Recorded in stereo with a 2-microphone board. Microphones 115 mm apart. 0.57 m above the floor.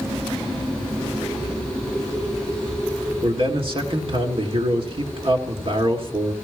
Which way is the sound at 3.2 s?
50° right (ahead or behind).